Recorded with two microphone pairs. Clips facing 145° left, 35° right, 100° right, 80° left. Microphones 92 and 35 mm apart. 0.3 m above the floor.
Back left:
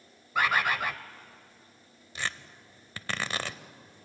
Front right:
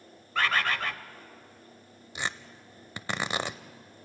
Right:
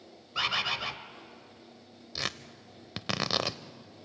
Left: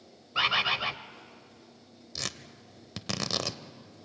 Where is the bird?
95° left, 0.8 m.